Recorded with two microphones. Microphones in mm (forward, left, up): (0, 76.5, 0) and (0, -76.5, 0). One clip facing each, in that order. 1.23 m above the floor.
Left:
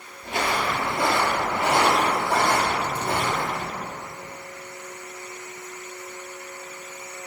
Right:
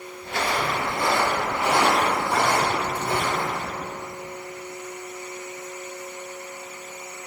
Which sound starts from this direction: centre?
Footsteps, at 0.2 s.